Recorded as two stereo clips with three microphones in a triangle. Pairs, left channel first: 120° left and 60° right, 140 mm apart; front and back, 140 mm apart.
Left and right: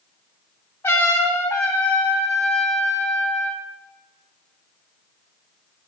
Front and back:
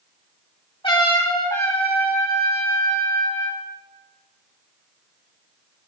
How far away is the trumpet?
About 3.5 m.